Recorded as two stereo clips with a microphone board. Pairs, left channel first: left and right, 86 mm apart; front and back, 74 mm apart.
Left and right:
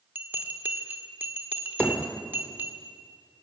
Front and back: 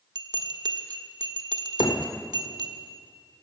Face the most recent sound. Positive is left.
turn(degrees=15)